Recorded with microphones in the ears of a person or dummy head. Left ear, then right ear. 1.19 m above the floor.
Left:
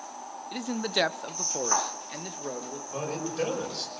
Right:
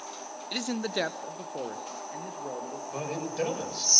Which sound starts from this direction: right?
A man speaking, at 0.5 s.